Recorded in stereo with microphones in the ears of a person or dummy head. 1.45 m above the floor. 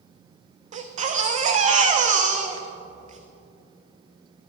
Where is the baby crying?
40° right (ahead or behind), 0.6 m.